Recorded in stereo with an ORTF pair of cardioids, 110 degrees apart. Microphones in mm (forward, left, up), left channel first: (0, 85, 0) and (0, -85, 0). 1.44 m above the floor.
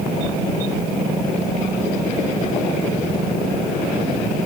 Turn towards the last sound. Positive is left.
No sound to turn to.